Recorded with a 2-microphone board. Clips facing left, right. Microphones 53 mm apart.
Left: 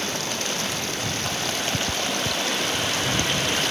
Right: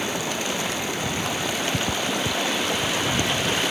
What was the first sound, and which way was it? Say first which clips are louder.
Running water: right 2 dB; 10° right (ahead or behind).